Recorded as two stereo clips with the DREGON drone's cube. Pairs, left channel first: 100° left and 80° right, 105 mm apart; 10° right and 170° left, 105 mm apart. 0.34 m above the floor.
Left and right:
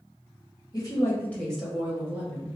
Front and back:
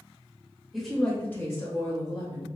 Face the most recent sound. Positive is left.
turn(degrees=-30)